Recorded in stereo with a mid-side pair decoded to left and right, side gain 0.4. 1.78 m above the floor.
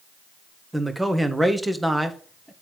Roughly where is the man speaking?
Ahead.